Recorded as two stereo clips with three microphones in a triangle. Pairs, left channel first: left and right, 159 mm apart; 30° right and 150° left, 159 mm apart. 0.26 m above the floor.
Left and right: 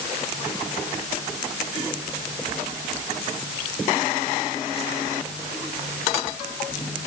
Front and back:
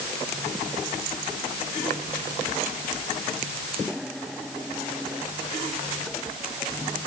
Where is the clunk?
I don't hear a clunk.